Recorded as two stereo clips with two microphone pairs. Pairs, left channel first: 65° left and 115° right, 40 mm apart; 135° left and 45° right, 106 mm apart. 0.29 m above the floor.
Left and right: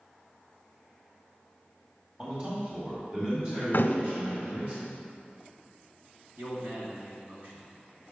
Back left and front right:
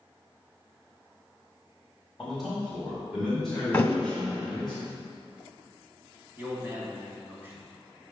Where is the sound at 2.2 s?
140° right, 1.5 m.